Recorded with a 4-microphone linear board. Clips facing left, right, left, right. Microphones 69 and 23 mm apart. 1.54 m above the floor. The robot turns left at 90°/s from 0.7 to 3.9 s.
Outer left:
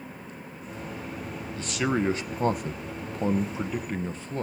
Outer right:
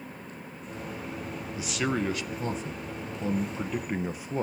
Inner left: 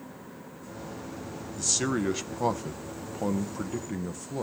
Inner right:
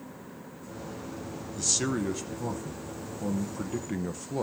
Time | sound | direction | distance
1.6 | a man speaking | 165° right | 0.8 m